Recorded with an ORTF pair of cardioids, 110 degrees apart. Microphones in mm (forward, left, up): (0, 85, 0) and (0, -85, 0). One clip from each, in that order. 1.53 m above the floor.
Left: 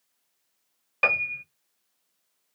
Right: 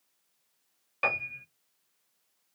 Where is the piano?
30° left, 1.0 m.